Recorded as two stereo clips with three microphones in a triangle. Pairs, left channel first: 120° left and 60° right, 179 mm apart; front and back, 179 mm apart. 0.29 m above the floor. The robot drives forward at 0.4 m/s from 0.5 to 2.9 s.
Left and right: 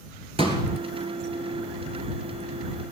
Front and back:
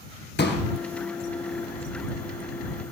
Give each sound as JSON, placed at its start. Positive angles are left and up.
{"t": 0.4, "sound": "a pop", "azimuth_deg": 0, "distance_m": 2.5}